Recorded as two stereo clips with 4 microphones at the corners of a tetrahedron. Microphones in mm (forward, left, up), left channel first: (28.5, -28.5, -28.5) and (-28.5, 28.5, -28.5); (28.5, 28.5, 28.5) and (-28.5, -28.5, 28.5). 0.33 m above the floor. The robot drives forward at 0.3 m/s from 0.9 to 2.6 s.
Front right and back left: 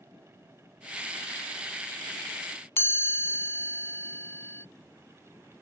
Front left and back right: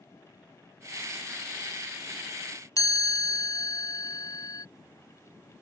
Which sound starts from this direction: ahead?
A chime, at 2.8 s.